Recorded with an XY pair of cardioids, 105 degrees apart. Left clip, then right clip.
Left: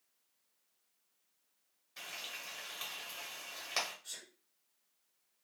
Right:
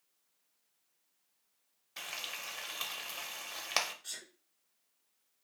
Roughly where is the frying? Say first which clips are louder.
Right 3 dB; ahead right.